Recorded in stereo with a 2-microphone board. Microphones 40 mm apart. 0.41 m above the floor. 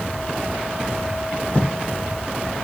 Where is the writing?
40° left (ahead or behind), 1.4 m.